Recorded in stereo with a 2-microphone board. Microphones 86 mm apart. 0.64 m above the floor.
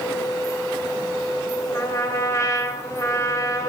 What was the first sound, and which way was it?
A trumpet, 35° left (ahead or behind).